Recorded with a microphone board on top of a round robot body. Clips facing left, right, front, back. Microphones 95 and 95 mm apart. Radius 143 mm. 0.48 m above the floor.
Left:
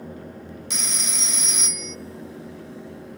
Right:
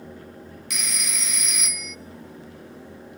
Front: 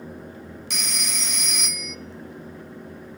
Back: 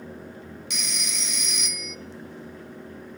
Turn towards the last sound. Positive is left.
turn(degrees=35)